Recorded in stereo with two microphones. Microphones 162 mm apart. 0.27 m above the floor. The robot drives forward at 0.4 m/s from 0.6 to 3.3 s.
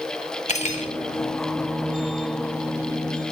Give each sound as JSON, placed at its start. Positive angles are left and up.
{"t": 0.5, "sound": "cutlery clinking", "side_deg": 45, "distance_m": 0.7}